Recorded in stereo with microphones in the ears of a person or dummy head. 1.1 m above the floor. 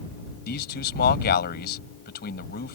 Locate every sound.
0.5 s a man speaking: 55° left (ahead or behind)